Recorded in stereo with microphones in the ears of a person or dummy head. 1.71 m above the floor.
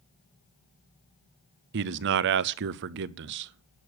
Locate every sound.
1.7 s a man speaking: 60° right (ahead or behind), 0.5 m